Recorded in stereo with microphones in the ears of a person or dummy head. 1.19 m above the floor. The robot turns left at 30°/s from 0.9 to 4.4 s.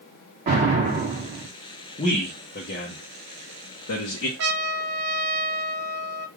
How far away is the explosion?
About 1.6 m.